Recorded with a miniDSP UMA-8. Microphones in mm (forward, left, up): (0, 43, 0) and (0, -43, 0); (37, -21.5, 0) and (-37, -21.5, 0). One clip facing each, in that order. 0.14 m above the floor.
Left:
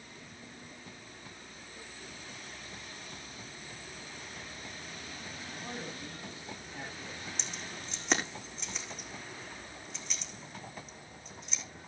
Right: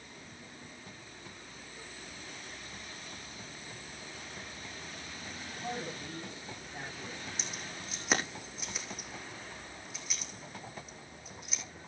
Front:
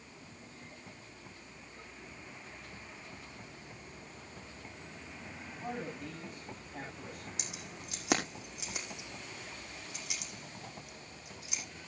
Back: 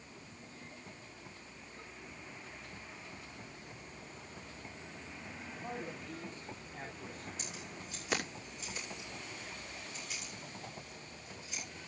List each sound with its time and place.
5.6 s a man speaking: 20° right, 9.5 m
7.4 s keys jangling: 5° right, 5.5 m